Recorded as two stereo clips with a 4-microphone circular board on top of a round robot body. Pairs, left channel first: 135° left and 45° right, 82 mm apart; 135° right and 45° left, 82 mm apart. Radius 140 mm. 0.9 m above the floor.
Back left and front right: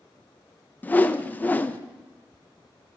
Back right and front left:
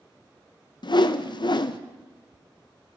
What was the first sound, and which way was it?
A whoosh, 155° right.